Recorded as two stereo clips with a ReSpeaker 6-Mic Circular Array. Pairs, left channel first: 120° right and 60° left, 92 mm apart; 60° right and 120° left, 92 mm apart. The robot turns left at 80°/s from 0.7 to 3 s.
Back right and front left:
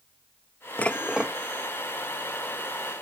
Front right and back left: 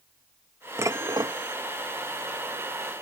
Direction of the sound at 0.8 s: 170° left.